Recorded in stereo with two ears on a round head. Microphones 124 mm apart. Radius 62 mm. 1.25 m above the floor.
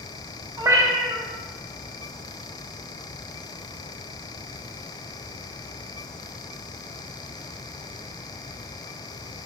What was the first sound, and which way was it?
A cat meowing, 20° right (ahead or behind).